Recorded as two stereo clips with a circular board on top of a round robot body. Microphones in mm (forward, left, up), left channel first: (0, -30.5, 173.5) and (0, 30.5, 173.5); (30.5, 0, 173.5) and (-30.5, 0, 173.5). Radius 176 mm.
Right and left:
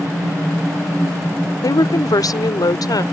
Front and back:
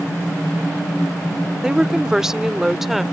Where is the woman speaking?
100° right; by 3.0 s 90° right.